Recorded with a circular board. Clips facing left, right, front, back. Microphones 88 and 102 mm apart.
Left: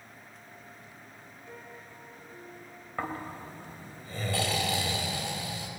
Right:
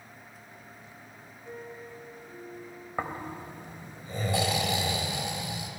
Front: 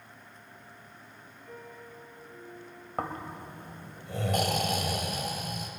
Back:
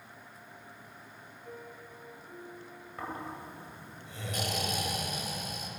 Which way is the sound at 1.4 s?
135° right.